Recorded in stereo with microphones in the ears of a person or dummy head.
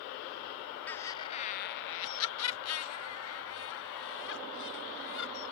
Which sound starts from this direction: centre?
Laughter, at 0.9 s.